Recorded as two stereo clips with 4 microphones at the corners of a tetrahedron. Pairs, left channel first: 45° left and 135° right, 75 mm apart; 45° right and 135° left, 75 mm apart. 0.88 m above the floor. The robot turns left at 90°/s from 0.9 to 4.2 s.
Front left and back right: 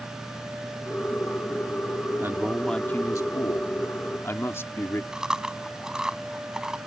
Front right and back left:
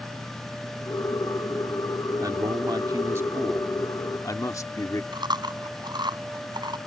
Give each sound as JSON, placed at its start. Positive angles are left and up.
{"t": 2.2, "sound": "a man speaking", "azimuth_deg": 170}
{"t": 5.1, "sound": "chewing", "azimuth_deg": 145}